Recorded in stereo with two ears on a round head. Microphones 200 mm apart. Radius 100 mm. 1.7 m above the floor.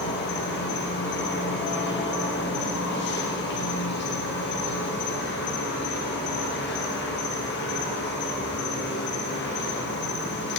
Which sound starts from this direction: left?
An insect, at 0.0 s.